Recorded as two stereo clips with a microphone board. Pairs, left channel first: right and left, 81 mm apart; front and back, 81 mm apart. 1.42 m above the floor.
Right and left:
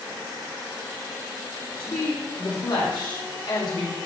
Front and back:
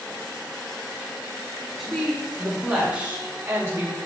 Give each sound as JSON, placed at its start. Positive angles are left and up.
{"t": 1.8, "sound": "a woman speaking", "azimuth_deg": -95, "distance_m": 3.0}